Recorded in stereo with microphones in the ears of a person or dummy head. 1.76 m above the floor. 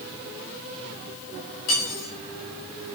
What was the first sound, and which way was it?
Cutlery clinking, 55° left (ahead or behind).